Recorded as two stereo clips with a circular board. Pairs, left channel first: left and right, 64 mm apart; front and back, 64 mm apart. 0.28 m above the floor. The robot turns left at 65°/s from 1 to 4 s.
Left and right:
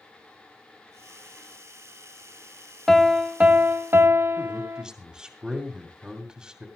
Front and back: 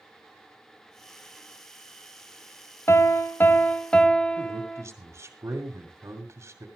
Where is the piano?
5° left, 0.8 m; by 4.8 s 70° right, 0.8 m.